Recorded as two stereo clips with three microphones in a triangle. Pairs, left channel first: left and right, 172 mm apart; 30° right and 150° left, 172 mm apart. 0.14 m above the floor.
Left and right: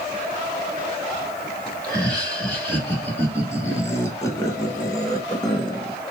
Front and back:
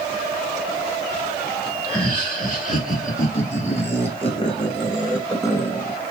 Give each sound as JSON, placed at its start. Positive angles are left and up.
{"t": 1.8, "sound": "laughter", "azimuth_deg": 10, "distance_m": 3.5}